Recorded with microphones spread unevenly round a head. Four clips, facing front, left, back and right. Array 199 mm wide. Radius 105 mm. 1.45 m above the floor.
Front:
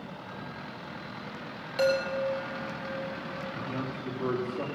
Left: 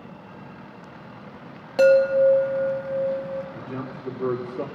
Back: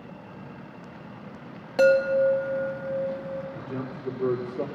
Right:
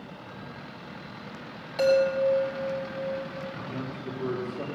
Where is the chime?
105° left, 1.7 m.